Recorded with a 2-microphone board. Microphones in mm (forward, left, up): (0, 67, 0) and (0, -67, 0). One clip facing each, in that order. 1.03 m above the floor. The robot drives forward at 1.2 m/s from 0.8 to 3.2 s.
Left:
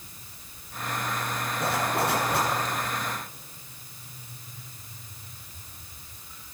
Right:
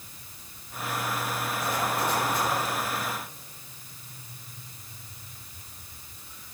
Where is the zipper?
70° left (ahead or behind), 8 m; by 2.5 s 75° left (ahead or behind), 7.5 m.